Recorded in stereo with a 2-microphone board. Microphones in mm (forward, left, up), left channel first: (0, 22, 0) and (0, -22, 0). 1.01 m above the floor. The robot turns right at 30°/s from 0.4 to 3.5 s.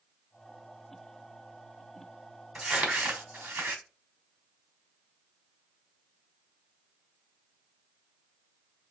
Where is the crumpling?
25° right (ahead or behind), 1.2 m; by 3.8 s 50° right (ahead or behind), 1.2 m.